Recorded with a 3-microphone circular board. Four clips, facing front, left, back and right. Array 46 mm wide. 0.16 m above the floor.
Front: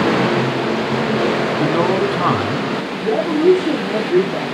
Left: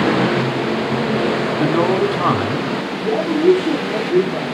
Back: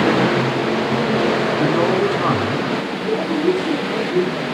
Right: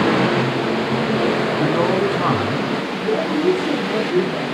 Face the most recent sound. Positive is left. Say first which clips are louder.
# left 3 dB, front 6 dB
turn(degrees=10)